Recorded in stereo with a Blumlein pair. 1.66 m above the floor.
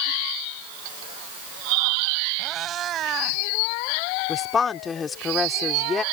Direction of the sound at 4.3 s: 20° left.